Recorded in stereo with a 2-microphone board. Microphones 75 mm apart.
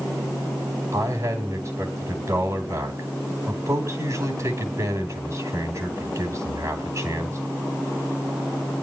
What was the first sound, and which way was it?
A man speaking, 45° right (ahead or behind).